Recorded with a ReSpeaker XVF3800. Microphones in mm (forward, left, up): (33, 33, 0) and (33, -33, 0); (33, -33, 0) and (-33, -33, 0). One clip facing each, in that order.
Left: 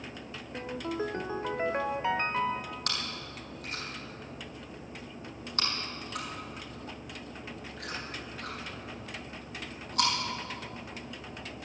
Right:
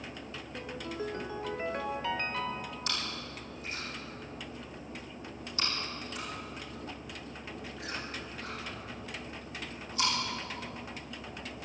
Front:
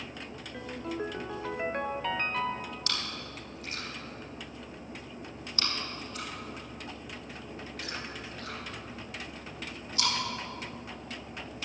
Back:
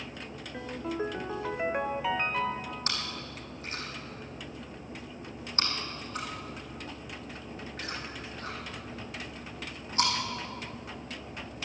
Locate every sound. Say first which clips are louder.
0.5 s a ringtone: left 5 dB, back 2 dB; 110° left, 0.5 m
2.9 s chewing: even, back 1 dB; 125° left, 4.5 m